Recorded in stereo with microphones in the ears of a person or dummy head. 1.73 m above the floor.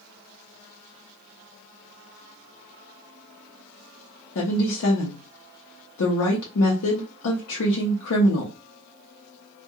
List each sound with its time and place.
4.3 s a woman speaking: 70° left (ahead or behind), 0.6 m